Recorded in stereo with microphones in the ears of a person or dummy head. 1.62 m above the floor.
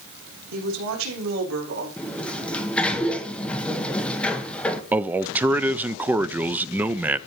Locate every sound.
0.5 s a woman speaking: 80° right, 3 m
2.0 s a sliding door: 10° left (ahead or behind), 1.2 m
4.9 s a man speaking: 10° right (ahead or behind), 0.5 m